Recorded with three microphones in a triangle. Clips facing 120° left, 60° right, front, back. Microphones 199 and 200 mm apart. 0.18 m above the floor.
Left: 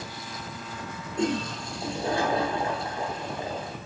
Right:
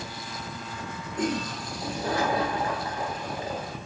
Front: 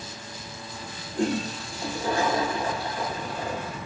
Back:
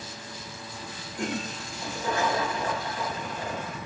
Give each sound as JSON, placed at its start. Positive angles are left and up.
{"t": 1.1, "sound": "a toilet flushing", "azimuth_deg": 60, "distance_m": 1.1}